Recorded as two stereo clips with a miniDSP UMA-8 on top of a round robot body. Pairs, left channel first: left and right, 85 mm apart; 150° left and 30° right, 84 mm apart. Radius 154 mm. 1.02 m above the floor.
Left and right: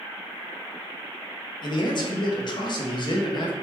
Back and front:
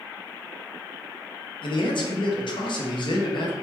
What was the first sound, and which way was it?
A man speaking, 125° left.